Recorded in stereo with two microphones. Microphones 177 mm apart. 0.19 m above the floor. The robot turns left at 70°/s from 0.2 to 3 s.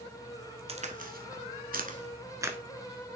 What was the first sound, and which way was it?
A crack, 35° right (ahead or behind).